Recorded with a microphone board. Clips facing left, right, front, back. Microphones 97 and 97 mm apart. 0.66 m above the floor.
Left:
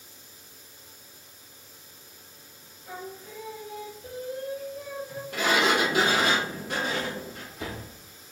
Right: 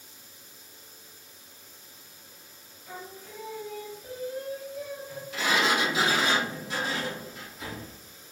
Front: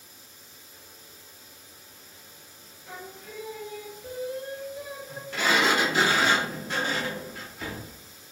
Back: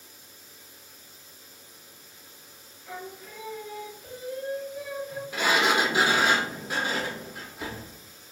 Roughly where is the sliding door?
Left.